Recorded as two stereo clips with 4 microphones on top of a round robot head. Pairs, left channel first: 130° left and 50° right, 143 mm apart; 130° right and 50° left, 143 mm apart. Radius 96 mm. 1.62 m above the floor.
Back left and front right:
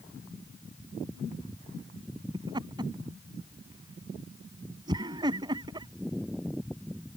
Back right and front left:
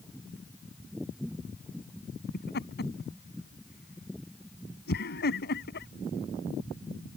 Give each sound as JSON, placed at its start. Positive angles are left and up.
{"t": 2.3, "sound": "laughter", "azimuth_deg": -115}